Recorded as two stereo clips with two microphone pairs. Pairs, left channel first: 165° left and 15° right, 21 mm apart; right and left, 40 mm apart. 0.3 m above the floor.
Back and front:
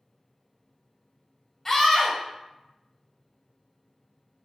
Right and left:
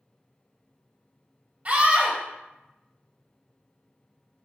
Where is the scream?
110° left, 1.1 m.